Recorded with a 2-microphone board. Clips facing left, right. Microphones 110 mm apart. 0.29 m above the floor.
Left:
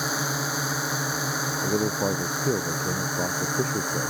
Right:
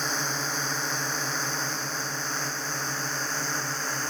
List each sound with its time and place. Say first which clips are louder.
0.0 s a drone: left 3 dB; 10° left (ahead or behind)
1.6 s a man speaking: left 9 dB; 85° left